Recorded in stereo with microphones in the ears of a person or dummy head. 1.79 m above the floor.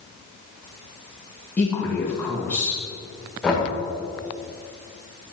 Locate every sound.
1.6 s a man speaking: 5° left (ahead or behind), 2 m
3.4 s knocking: centre (ahead or behind), 1.2 m